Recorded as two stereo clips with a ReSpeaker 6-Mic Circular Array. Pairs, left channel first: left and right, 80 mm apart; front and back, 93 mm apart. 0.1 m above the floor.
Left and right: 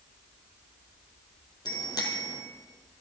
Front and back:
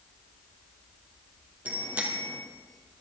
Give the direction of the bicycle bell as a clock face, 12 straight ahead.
8 o'clock.